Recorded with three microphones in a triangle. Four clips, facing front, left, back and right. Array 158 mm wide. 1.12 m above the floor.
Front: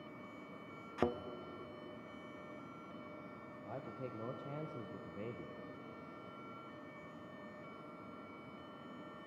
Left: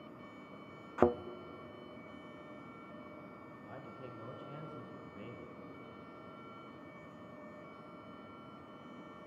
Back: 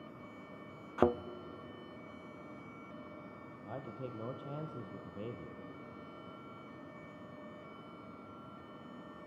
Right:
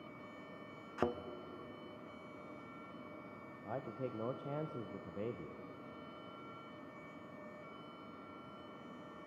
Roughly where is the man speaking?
Right.